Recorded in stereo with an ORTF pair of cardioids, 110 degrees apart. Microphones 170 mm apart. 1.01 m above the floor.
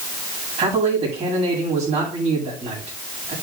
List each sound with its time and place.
0.6 s a man speaking: 40° right, 7 m